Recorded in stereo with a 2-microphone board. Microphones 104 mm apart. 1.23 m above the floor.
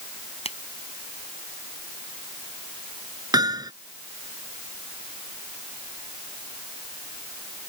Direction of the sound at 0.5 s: 70° left (ahead or behind).